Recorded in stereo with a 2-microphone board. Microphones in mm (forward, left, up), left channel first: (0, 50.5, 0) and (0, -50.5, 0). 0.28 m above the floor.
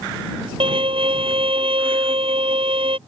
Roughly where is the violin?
Right.